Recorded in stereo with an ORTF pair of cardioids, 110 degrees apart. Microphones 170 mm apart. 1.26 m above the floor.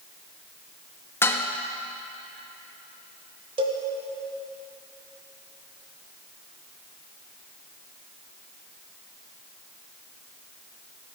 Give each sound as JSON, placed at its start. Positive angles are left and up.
{"t": 1.2, "sound": "dishes clattering", "azimuth_deg": 15, "distance_m": 1.1}
{"t": 3.6, "sound": "a cowbell", "azimuth_deg": -30, "distance_m": 1.9}